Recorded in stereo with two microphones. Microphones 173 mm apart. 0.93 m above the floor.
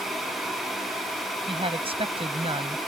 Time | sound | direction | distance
1.5 | a woman speaking | 35° right (ahead or behind) | ?